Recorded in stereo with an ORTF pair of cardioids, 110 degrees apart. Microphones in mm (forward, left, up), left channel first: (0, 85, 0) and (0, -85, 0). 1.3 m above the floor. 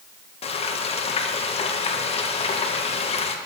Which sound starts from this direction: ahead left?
Frying, at 0.4 s.